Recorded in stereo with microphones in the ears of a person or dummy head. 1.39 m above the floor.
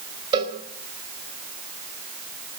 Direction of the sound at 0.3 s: 25° right (ahead or behind).